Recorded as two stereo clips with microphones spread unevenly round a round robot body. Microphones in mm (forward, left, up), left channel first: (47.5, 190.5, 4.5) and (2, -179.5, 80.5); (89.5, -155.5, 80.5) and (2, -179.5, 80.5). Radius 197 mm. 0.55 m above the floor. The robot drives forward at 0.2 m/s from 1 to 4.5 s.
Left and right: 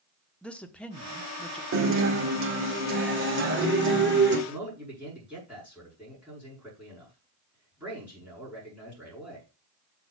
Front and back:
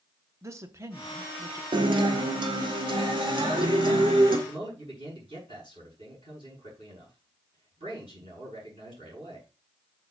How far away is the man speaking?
About 7 m.